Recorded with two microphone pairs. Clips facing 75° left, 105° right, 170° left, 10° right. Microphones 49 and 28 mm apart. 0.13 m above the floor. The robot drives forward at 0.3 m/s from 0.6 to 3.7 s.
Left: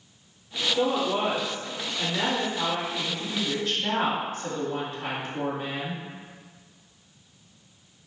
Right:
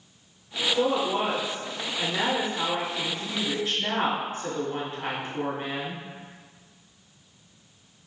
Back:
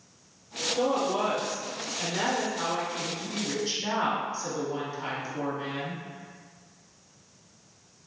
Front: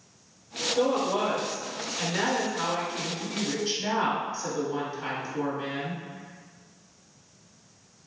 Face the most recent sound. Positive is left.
turn(degrees=-90)